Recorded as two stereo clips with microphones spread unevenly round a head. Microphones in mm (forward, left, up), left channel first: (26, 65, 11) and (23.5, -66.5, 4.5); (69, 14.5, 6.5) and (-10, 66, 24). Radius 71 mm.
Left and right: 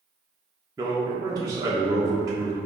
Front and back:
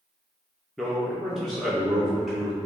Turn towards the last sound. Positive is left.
turn(degrees=-140)